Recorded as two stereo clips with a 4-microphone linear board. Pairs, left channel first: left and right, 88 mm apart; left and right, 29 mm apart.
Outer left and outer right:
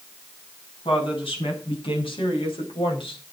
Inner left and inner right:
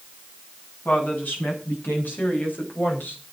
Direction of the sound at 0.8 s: 85° left.